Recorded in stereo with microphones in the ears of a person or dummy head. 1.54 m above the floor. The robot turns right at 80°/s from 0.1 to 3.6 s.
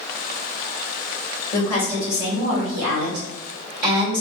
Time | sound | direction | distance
1.5 | a woman speaking | 145° left | 2.0 m